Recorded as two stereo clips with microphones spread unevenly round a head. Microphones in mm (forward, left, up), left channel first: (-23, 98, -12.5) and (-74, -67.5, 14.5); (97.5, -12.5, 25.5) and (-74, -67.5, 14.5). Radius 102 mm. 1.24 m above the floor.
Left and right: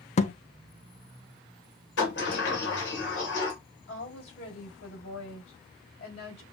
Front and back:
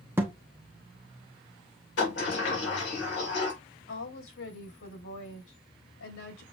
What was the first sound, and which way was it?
A thud, 120° left.